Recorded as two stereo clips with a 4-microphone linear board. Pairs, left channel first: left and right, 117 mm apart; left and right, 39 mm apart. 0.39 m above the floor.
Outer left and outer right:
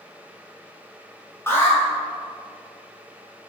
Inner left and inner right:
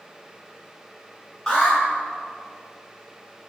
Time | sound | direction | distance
1.5 | an alarm | 20° left (ahead or behind) | 5.5 m